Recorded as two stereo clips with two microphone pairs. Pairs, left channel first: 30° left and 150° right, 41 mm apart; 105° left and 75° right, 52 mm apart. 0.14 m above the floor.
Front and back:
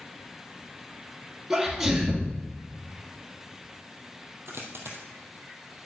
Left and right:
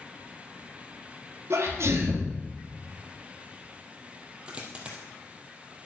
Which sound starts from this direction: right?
A sneeze, at 1.5 s.